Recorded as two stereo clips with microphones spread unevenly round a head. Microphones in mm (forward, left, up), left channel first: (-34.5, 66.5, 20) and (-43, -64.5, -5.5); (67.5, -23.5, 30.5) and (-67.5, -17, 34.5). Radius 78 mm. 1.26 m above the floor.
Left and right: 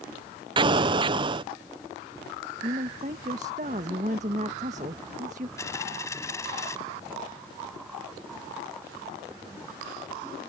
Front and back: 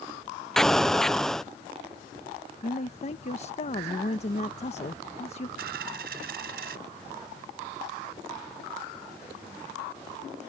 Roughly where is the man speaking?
Ahead right.